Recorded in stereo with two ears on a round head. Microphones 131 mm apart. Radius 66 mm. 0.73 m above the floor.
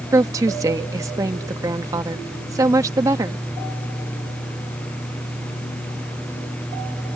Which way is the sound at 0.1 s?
20° right (ahead or behind).